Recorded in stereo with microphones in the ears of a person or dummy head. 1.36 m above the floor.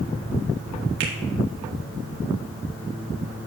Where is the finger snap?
70° right (ahead or behind), 1.9 m.